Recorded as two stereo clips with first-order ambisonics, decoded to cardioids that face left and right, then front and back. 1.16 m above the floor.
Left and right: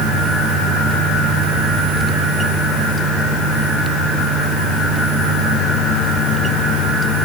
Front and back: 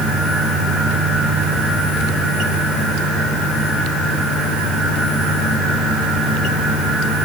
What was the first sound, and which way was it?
Only background noise.